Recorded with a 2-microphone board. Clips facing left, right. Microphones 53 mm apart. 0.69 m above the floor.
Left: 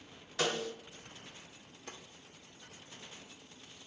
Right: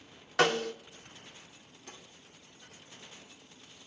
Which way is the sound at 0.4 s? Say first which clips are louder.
Right 7 dB; 60° right (ahead or behind).